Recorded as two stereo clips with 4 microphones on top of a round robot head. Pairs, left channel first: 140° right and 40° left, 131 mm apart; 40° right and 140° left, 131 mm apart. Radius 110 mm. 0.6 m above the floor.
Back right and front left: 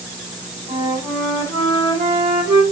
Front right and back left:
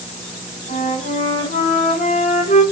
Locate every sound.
0.7 s a flute: 20° right, 2.5 m